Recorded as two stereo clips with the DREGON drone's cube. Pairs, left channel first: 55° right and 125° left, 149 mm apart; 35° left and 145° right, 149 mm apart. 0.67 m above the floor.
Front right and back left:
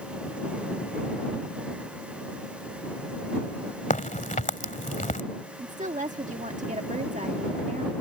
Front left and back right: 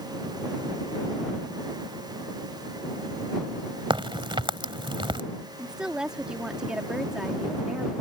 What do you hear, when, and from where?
3.9 s a crack: 90° right
5.6 s a woman speaking: 130° left